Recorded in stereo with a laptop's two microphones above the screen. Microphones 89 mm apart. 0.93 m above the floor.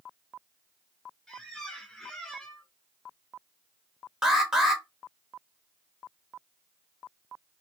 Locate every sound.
1.3 s a squeak: 5° left (ahead or behind), 0.6 m
4.2 s an alarm: 5° right (ahead or behind), 0.8 m